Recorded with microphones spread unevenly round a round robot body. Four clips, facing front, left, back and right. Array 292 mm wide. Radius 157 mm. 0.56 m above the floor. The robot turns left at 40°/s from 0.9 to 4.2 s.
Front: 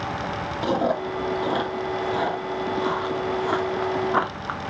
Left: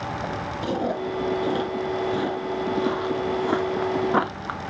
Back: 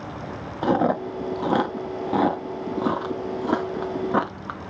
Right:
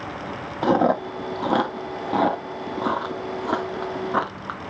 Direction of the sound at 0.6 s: 95° right.